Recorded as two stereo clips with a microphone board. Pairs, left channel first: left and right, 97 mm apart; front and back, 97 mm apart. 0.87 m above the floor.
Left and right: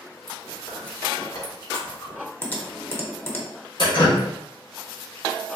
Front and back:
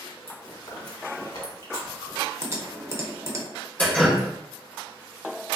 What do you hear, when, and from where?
0.3 s chewing: 45° left, 1.4 m
2.4 s typing on a keyboard: 140° left, 0.6 m
3.8 s dripping: 75° left, 1.1 m